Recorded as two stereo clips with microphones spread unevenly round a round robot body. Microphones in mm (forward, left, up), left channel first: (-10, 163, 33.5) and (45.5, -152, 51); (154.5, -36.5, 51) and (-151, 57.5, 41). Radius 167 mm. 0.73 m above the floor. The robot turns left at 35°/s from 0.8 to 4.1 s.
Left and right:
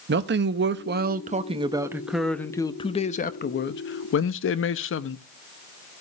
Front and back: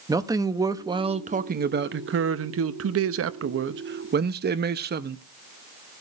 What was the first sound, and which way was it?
A man speaking, 125° right.